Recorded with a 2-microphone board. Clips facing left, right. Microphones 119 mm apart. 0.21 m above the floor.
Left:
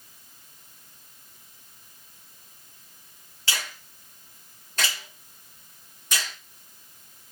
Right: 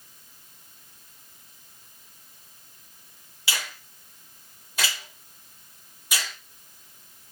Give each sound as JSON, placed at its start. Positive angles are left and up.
{"t": 3.5, "sound": "a finger snap", "side_deg": -10, "distance_m": 1.9}